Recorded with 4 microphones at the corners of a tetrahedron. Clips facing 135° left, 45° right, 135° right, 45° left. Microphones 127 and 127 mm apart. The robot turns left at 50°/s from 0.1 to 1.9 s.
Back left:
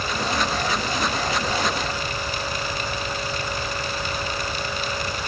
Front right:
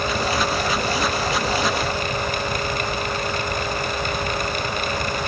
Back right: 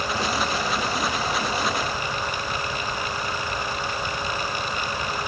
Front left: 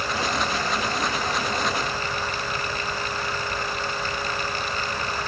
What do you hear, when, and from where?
Only background noise.